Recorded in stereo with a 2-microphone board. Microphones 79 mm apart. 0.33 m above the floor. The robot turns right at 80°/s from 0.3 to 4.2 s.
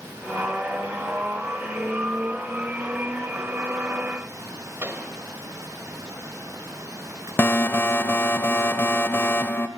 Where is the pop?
30° right (ahead or behind), 1.7 m.